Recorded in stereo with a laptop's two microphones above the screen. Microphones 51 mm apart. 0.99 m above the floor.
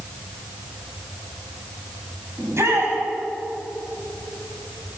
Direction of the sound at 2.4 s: 60° right (ahead or behind).